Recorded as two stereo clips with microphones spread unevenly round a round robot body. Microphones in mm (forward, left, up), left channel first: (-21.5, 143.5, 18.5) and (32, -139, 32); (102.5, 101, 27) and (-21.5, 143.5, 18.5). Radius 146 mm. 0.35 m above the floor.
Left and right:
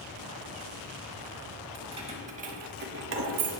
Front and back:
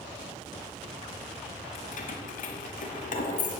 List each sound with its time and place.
1.8 s keys jangling: 5° right, 1.6 m; by 3.5 s 45° right, 1.0 m